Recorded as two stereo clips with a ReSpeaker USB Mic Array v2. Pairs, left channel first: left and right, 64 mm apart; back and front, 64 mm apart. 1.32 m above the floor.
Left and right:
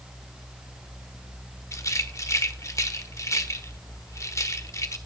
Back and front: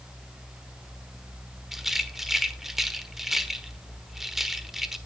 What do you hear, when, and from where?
1.7 s a rattle: 85° left, 1.3 m